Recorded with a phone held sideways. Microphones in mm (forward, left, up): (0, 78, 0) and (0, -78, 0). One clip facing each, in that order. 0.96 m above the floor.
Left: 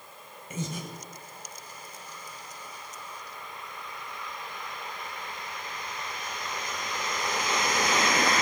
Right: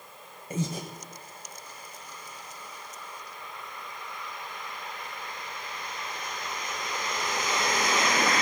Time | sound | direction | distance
0.5 | breathing | 40° right (ahead or behind) | 1.9 m